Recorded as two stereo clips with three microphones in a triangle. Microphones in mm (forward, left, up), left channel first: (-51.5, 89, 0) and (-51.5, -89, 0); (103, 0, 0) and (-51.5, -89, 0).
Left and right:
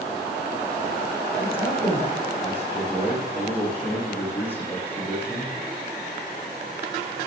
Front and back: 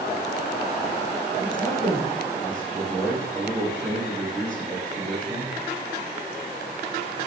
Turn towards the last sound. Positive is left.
turn(degrees=170)